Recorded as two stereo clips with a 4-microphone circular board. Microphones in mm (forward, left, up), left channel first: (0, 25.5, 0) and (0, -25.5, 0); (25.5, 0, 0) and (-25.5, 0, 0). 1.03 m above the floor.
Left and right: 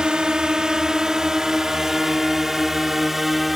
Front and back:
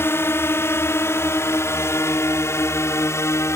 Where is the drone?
20° right; by 3.6 s 5° right.